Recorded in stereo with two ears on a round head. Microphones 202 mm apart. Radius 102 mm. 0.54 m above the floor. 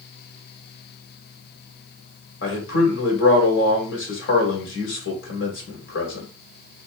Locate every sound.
2.4 s a man speaking: 55° left (ahead or behind), 2.0 m